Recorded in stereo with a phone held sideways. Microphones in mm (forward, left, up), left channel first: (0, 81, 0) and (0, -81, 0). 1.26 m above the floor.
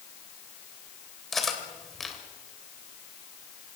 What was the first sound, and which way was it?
Cutlery clinking, centre (ahead or behind).